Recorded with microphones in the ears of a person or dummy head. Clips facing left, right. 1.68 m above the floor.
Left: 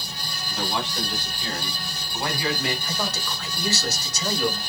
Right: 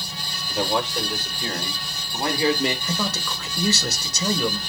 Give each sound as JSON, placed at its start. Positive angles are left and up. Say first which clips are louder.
{"t": 0.5, "sound": "a man speaking", "louder": "right 5 dB", "side_deg": -40, "distance_m": 5.0}
{"t": 2.9, "sound": "a man speaking", "louder": "right 2 dB", "side_deg": -75, "distance_m": 1.9}